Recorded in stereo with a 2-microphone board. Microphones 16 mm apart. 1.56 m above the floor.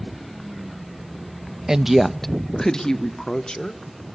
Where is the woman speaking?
40° right (ahead or behind), 0.5 m; by 3.8 s 50° left (ahead or behind), 2 m.